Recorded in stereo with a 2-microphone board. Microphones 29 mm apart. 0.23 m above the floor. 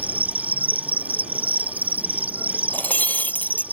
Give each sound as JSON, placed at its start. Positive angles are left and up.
{"t": 0.0, "sound": "an insect", "side_deg": -70}
{"t": 2.7, "sound": "breaking glass", "side_deg": 80}